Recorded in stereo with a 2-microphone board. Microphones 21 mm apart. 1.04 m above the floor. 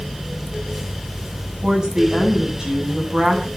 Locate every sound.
1.6 s a woman speaking: 35° right (ahead or behind), 8.5 m